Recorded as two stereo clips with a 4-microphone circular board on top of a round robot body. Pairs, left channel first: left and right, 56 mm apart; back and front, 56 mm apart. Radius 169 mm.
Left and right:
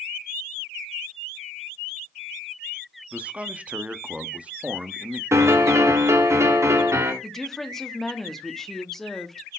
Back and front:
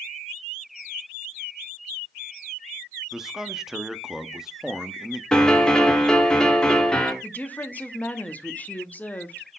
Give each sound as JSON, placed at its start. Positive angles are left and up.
{"t": 3.1, "sound": "a man speaking", "azimuth_deg": -70, "distance_m": 1.0}
{"t": 5.3, "sound": "a piano", "azimuth_deg": -105, "distance_m": 1.7}
{"t": 7.2, "sound": "a woman speaking", "azimuth_deg": 165, "distance_m": 1.3}